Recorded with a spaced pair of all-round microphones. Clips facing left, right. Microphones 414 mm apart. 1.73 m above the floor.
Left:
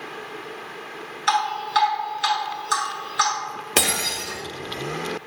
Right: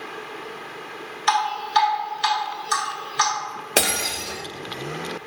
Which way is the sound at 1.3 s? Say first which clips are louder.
Right 1 dB; 10° right (ahead or behind).